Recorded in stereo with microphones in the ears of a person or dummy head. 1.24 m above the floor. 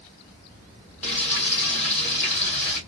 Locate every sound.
1.0 s frying: 5° left (ahead or behind), 1.7 m